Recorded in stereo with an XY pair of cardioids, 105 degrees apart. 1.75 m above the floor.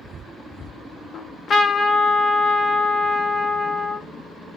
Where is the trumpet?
50° left, 0.5 m.